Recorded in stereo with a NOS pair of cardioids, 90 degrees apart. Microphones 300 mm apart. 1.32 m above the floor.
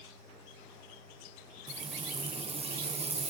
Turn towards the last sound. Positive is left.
turn(degrees=-20)